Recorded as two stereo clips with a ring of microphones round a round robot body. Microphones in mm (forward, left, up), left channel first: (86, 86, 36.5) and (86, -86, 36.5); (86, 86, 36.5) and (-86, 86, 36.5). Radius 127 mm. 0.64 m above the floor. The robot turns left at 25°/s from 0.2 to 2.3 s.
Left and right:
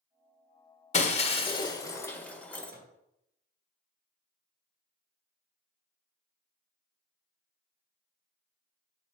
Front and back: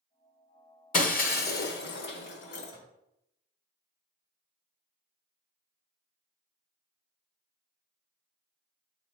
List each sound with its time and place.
0.9 s breaking glass: 40° left, 1.1 m; by 2.7 s 10° left, 1.1 m
2.7 s a microwave: 70° right, 3.5 m